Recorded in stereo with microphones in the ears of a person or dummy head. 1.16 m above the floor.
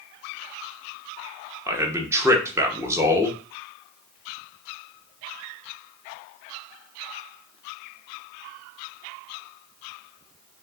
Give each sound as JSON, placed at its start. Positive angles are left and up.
{"t": 1.7, "sound": "a man speaking", "side_deg": -10, "distance_m": 0.6}